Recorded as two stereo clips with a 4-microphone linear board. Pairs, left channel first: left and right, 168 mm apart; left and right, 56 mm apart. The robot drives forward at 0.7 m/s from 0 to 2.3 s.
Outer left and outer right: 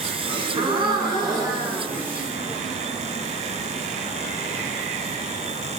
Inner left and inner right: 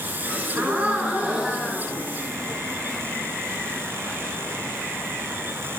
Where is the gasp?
35° right (ahead or behind), 0.8 m; by 2.6 s 15° right (ahead or behind), 1.6 m.